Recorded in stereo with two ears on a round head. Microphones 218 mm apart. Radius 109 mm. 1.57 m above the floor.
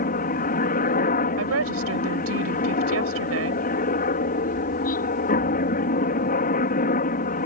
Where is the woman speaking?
65° right (ahead or behind).